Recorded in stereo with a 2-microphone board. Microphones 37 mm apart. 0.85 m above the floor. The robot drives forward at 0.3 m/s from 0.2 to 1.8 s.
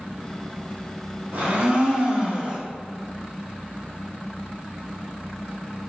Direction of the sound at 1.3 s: 50° right (ahead or behind).